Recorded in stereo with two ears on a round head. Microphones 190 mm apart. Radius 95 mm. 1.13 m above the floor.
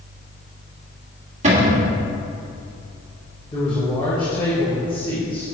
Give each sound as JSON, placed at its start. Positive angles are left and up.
{"t": 1.4, "sound": "a cupboard door", "side_deg": -35, "distance_m": 1.6}
{"t": 3.5, "sound": "a man speaking", "side_deg": 20, "distance_m": 1.4}